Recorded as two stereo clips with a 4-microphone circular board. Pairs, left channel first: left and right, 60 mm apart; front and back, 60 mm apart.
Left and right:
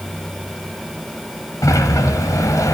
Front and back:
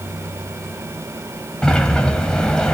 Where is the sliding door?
75° left, 1.8 m.